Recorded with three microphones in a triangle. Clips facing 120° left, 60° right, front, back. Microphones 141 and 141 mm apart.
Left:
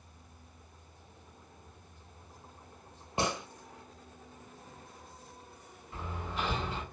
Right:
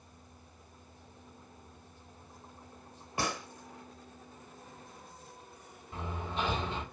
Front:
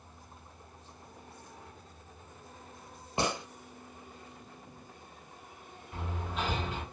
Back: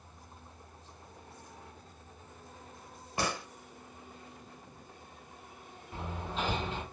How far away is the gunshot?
About 0.6 m.